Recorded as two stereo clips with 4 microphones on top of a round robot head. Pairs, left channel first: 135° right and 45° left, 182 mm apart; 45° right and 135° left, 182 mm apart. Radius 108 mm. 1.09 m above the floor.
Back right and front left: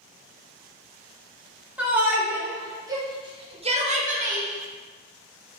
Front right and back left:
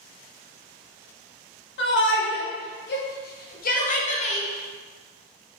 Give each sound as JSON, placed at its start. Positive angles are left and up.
{"t": 1.8, "sound": "a shout", "azimuth_deg": -35, "distance_m": 3.5}